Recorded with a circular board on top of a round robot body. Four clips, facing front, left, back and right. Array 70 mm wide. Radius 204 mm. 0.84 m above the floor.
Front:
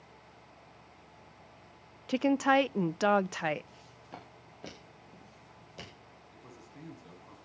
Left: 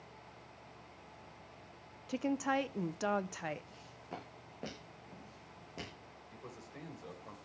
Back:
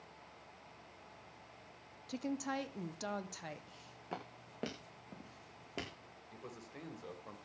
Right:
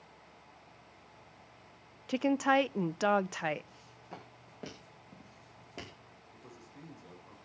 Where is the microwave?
I don't hear a microwave.